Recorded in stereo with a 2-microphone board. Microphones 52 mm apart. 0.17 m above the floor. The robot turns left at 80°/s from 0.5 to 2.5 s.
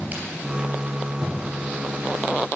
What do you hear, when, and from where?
0.1 s a crack: 30° right (ahead or behind), 3 m